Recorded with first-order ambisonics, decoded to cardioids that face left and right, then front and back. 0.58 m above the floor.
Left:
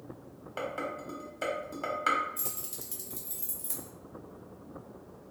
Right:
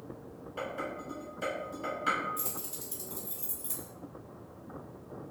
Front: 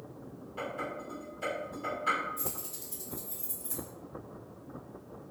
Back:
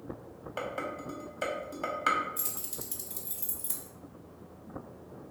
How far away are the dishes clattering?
About 0.9 m.